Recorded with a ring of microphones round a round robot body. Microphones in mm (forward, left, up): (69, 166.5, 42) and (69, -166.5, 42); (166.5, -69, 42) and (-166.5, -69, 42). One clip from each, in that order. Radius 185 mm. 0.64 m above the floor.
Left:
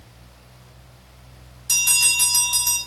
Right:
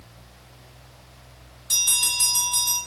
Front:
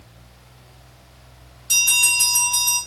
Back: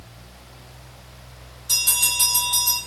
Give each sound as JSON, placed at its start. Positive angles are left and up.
{"t": 1.7, "sound": "a bell", "azimuth_deg": 125, "distance_m": 2.5}